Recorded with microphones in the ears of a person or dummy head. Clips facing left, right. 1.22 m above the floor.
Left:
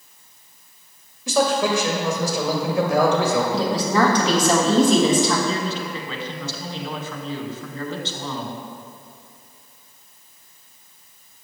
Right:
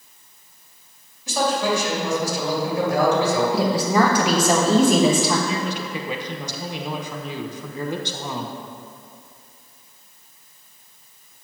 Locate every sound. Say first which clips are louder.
1.3 s a man speaking: left 2 dB; 55° left (ahead or behind), 2.5 m
3.5 s a woman speaking: right 1 dB; 15° right (ahead or behind), 1.5 m
5.5 s a man speaking: left 1 dB; 5° right (ahead or behind), 0.8 m